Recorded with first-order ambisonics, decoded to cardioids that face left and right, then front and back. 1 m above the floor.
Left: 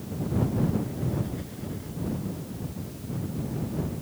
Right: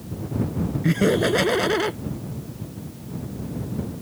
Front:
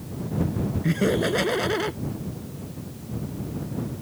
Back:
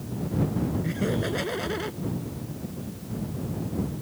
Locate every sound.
0.8 s laughter: 70° right